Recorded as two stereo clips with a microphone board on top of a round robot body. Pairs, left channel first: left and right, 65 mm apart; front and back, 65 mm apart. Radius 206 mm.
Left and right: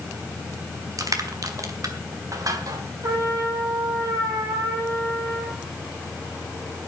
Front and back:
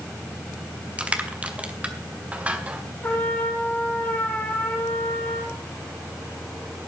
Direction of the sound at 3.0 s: 65° right.